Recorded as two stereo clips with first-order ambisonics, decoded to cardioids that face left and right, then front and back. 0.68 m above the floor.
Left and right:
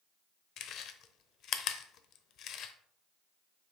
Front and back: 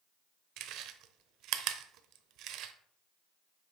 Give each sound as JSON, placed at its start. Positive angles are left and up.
{"t": 0.6, "sound": "chewing", "azimuth_deg": 140, "distance_m": 0.8}